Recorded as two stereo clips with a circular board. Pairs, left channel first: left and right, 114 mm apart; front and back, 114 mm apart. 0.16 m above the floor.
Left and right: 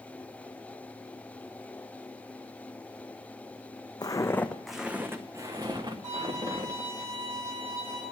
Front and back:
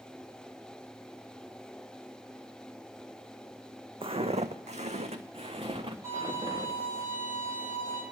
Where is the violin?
120° right, 6.5 m.